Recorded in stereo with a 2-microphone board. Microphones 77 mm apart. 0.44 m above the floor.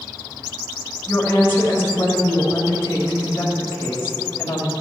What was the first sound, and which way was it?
A woman speaking, 30° left (ahead or behind).